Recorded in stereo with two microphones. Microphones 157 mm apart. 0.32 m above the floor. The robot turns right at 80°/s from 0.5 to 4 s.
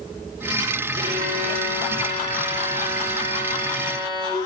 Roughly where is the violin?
Right.